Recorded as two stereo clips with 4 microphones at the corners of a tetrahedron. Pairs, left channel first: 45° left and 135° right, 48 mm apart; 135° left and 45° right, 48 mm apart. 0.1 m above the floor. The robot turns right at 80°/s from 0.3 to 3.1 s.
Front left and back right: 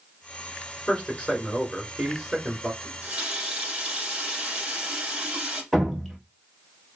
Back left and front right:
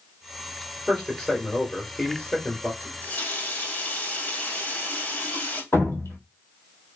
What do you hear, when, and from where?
0.9 s a man speaking: 30° left, 1.1 m; by 2.7 s 175° left, 1.1 m
2.8 s a running tap: 145° left, 1.3 m; by 5.6 s 170° left, 1.3 m
5.7 s dripping: 135° left, 1.3 m